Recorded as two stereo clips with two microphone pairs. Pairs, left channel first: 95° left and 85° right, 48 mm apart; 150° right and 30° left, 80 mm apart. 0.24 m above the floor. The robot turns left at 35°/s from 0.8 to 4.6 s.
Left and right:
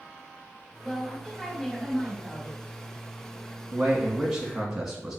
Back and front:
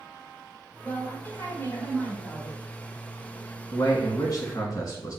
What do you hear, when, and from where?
0.8 s a woman speaking: 160° right, 1.5 m; by 2.6 s 135° left, 1.5 m
3.7 s a man speaking: 145° right, 1.8 m; by 5.2 s straight behind, 1.8 m